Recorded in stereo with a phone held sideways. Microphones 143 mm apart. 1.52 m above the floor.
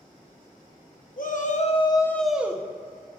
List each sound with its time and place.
1.2 s a shout: 70° left (ahead or behind), 1.1 m; by 3.2 s 35° right (ahead or behind), 1.4 m